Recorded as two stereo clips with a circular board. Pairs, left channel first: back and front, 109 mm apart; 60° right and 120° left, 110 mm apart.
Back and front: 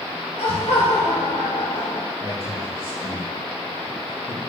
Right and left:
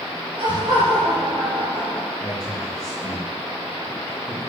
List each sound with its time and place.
0.4 s laughter: 160° left, 1.2 m; by 2.1 s 135° right, 1.0 m
2.2 s a man speaking: 160° right, 3.5 m